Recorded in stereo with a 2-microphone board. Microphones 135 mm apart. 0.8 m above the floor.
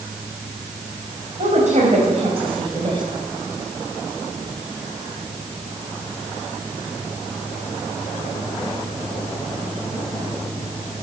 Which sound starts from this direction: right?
A woman speaking, at 1.4 s.